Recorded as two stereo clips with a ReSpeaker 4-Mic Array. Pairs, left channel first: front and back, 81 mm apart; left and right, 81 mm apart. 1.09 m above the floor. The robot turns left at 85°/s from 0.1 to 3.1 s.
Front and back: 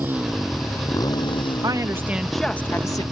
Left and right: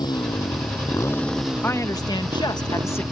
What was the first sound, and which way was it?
A motorcycle, 115° left.